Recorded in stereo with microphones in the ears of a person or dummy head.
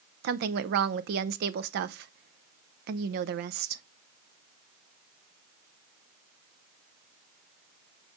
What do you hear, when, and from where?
0.2 s a woman speaking: 60° right (ahead or behind), 0.7 m